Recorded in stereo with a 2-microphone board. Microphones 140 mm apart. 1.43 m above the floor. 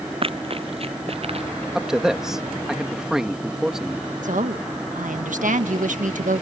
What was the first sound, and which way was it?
Running footsteps, 45° right (ahead or behind).